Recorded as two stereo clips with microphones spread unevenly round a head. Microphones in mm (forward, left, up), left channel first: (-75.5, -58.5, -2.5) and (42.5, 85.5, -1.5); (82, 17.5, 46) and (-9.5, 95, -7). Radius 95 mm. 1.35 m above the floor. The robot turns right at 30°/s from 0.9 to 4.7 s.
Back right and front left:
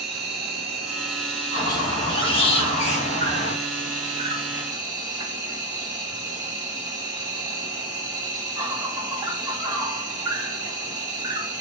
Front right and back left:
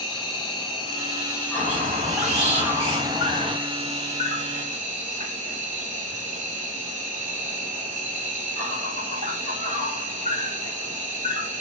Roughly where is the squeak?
Behind.